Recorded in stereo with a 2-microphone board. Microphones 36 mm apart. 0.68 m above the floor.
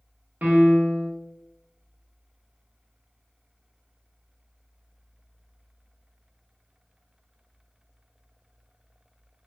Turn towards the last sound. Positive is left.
turn(degrees=-55)  # may be behind; listen again after turning